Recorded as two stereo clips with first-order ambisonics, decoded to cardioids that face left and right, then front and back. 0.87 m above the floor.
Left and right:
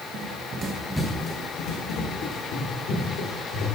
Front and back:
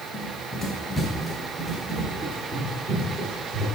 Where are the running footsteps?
70° right, 1.3 m; by 3.6 s 105° left, 3.5 m.